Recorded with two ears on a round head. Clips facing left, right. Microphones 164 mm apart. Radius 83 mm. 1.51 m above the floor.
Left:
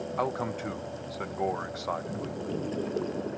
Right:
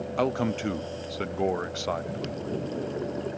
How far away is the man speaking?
About 0.5 m.